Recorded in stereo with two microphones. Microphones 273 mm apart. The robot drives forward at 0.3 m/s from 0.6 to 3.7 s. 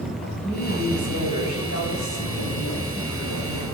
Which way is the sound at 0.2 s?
80° left.